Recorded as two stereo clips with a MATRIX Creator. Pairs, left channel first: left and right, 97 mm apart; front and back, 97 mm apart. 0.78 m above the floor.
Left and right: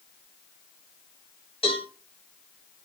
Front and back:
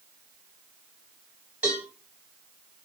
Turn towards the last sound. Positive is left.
turn(degrees=100)